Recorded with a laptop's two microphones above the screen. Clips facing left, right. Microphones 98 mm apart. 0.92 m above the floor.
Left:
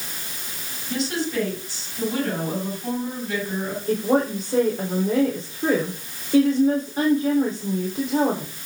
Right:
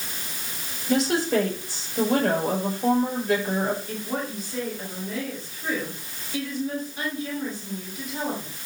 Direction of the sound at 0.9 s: 80° right.